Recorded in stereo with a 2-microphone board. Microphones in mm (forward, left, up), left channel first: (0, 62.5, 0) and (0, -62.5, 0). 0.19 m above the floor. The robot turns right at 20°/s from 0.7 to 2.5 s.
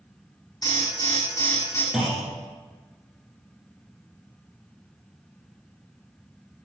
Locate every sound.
0.6 s an alarm: 30° left (ahead or behind), 2.5 m; by 1.8 s 25° left (ahead or behind), 2.5 m
1.9 s a clunk: 5° right (ahead or behind), 1.4 m; by 2.3 s centre (ahead or behind), 1.4 m